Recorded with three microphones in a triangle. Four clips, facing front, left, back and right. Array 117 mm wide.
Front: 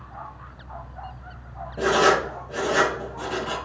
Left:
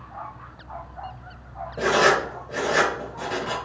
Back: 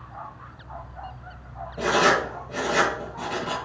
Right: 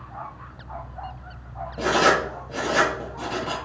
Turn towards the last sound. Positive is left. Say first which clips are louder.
# even, front 2 dB
turn(degrees=55)